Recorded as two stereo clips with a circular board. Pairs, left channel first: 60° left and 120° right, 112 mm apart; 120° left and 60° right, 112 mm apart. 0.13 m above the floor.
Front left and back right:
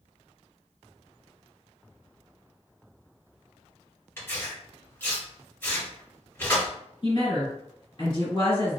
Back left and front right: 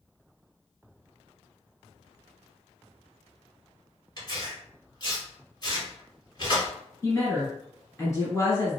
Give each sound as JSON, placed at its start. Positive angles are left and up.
{"t": 4.2, "sound": "tearing paper", "azimuth_deg": 115, "distance_m": 1.8}
{"t": 7.0, "sound": "a woman speaking", "azimuth_deg": 70, "distance_m": 1.8}